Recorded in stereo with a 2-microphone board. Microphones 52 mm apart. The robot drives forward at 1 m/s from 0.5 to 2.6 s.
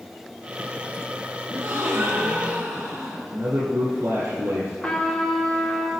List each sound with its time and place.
1.5 s a gasp: 70° right (ahead or behind), 3 m; by 3.2 s 75° right (ahead or behind), 3 m
3.3 s a man speaking: 60° right (ahead or behind), 4 m
4.8 s a trumpet: centre (ahead or behind), 3 m